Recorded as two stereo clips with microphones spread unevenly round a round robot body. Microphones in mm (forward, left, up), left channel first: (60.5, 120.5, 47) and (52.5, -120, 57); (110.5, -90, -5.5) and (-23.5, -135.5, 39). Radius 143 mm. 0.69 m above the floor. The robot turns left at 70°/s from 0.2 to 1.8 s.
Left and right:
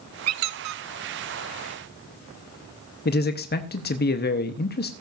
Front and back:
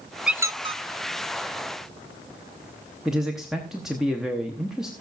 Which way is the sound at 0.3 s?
70° right.